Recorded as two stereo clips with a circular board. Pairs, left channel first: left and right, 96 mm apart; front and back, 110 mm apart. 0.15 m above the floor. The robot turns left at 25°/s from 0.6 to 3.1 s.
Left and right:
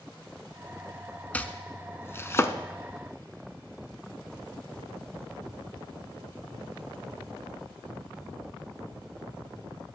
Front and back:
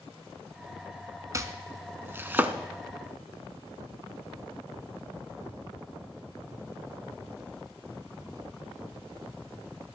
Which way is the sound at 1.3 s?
150° left.